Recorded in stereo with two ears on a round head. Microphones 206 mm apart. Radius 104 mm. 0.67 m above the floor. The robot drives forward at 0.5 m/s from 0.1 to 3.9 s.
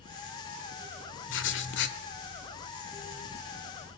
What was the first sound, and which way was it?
Writing, 60° left (ahead or behind).